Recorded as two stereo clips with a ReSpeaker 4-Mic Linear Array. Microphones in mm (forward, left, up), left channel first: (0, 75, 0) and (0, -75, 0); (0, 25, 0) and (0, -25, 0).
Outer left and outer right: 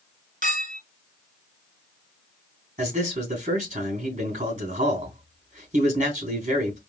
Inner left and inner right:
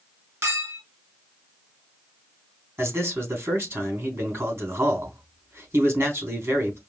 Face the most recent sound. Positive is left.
turn(degrees=-45)  # may be behind; listen again after turning